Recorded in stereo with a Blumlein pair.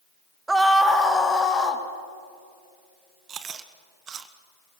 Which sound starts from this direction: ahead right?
Chewing, at 3.3 s.